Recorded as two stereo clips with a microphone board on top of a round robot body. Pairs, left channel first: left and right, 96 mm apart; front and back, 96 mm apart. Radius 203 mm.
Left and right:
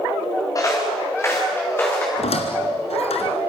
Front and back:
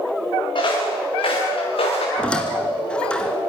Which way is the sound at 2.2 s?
80° left.